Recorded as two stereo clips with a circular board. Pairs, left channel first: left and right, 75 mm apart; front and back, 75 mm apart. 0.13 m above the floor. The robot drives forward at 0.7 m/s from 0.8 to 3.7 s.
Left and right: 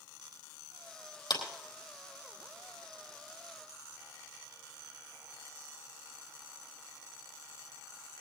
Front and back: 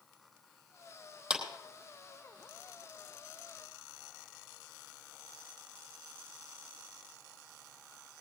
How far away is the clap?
About 4 m.